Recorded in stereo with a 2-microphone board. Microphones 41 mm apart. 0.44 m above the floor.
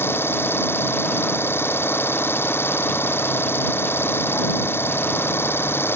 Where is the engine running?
85° left.